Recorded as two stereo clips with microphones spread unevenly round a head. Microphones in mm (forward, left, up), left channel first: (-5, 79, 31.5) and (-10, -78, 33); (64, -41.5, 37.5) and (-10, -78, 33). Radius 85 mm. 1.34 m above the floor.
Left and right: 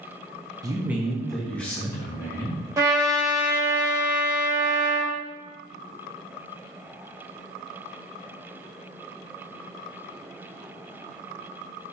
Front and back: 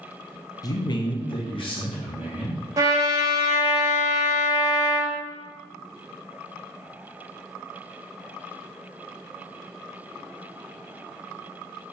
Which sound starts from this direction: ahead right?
A man speaking, at 0.6 s.